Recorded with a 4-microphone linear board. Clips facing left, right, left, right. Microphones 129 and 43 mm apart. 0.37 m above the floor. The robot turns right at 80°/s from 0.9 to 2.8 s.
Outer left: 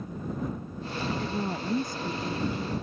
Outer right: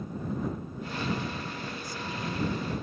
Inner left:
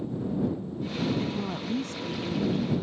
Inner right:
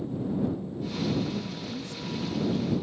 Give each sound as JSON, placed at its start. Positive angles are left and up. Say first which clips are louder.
{"t": 1.2, "sound": "a woman speaking", "louder": "outer left 5 dB, inner left 1 dB", "azimuth_deg": 65}